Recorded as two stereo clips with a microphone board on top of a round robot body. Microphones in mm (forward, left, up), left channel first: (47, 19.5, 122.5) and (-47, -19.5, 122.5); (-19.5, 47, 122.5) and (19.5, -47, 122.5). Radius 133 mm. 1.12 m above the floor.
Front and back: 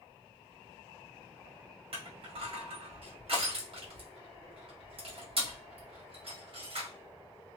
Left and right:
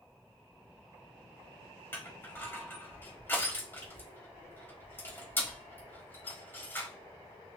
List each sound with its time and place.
1.9 s crushing: straight behind, 1.4 m